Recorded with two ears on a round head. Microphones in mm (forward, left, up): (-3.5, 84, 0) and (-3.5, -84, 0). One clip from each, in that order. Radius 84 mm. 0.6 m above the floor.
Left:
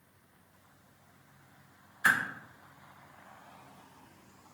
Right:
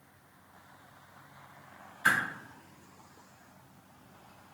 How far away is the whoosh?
About 1.1 m.